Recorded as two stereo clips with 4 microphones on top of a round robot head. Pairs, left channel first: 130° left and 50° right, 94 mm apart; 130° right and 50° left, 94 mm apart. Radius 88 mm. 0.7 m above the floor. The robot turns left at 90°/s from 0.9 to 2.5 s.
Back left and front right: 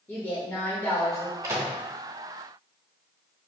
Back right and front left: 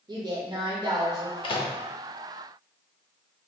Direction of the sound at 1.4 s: 105° right.